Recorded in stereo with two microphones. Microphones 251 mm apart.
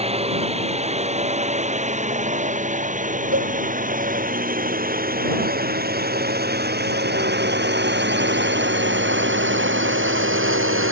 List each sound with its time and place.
0.0 s a drone: 25° right (ahead or behind); by 10.9 s 55° right (ahead or behind)
3.3 s a cowbell: 60° right (ahead or behind)